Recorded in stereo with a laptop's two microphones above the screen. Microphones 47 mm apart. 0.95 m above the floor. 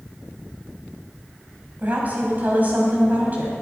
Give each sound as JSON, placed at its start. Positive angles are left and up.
{"t": 1.8, "sound": "a woman speaking", "side_deg": -40, "distance_m": 5.0}